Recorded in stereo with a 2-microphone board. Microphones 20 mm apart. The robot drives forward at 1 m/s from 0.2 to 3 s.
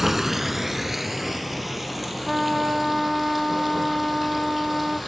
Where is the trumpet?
15° right (ahead or behind), 1.0 m.